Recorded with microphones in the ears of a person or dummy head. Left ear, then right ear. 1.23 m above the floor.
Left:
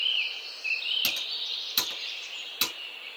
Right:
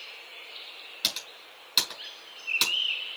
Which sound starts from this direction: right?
Typing on a keyboard, at 1.0 s.